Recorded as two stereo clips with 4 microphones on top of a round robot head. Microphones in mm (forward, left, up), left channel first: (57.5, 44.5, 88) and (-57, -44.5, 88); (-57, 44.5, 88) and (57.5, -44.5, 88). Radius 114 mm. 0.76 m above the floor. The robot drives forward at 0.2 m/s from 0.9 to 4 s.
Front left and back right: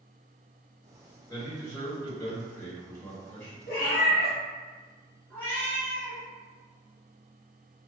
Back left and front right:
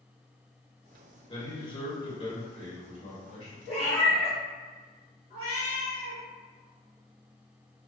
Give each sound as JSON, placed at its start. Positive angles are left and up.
{"t": 1.3, "sound": "a man speaking", "azimuth_deg": 95, "distance_m": 1.6}
{"t": 3.7, "sound": "a cat meowing", "azimuth_deg": 65, "distance_m": 1.3}
{"t": 5.3, "sound": "a cat meowing", "azimuth_deg": 115, "distance_m": 1.2}